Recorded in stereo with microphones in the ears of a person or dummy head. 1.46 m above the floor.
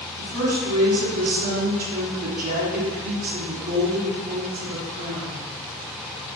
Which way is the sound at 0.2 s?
45° right (ahead or behind).